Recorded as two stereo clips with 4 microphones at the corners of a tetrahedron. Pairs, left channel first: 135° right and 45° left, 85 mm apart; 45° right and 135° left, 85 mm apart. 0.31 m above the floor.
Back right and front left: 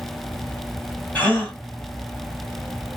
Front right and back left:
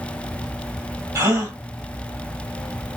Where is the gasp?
165° left, 1.4 m.